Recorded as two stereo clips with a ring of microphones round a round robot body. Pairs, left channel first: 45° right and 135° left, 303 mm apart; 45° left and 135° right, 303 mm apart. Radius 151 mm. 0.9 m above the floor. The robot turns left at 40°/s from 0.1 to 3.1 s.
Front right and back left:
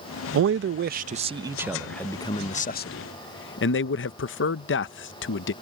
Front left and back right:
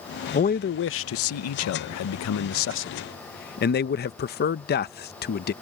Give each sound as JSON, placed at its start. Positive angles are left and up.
{"t": 0.3, "sound": "a man speaking", "azimuth_deg": 105}